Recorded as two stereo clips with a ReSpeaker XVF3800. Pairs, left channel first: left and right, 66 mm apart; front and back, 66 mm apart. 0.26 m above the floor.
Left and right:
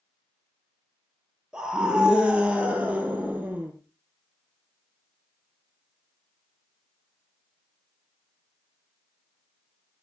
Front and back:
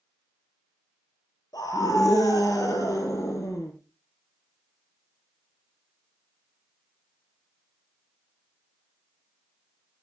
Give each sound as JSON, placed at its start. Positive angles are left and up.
{"t": 1.5, "sound": "a scream", "azimuth_deg": -10, "distance_m": 5.0}